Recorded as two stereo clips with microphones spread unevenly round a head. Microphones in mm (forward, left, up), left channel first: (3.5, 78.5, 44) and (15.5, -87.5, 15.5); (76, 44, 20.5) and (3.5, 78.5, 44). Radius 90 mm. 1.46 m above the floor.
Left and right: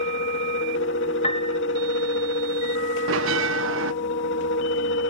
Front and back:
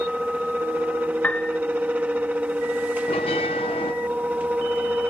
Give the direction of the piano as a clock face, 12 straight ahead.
10 o'clock.